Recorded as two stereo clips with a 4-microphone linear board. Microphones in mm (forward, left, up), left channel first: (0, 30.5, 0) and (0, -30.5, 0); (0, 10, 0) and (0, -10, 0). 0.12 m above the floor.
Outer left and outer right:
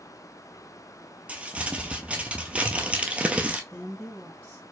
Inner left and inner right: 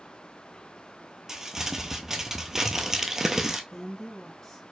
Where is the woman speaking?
20° left (ahead or behind), 1.4 m.